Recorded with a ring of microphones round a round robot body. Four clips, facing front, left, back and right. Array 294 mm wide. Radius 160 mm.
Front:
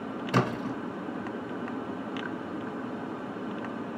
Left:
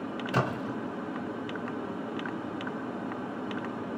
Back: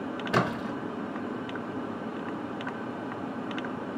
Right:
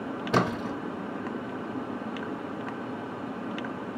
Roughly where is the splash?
Right.